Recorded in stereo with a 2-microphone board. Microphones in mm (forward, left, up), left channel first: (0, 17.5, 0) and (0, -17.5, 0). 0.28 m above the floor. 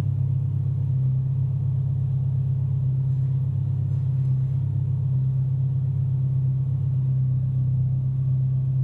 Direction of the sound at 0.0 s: 85° left.